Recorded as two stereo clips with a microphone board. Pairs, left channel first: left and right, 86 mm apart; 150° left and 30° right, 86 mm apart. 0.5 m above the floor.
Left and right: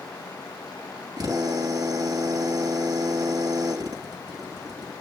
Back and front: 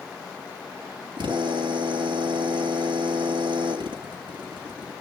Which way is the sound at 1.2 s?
50° right.